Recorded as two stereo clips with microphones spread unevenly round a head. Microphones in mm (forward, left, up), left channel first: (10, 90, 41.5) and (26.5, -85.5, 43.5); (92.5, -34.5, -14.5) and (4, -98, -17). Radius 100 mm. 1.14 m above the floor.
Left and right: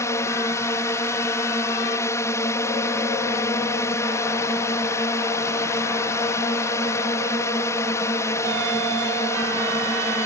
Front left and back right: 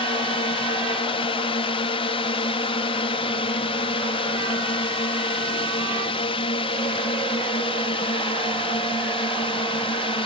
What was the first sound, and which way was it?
A drone, 25° left.